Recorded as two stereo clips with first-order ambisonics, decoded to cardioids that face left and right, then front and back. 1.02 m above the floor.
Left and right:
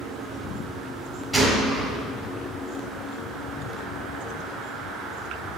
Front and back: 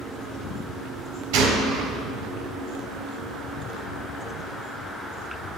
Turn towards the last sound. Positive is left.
turn(degrees=180)